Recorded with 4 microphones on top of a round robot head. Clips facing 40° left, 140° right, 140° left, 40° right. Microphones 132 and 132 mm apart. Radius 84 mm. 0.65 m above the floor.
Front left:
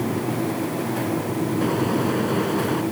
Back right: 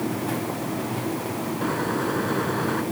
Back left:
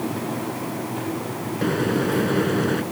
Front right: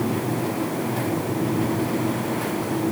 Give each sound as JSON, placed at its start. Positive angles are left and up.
{"t": 1.6, "sound": "a microwave", "azimuth_deg": 115}